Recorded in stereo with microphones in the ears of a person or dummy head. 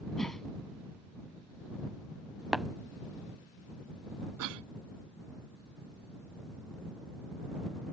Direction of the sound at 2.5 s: 5° right (ahead or behind).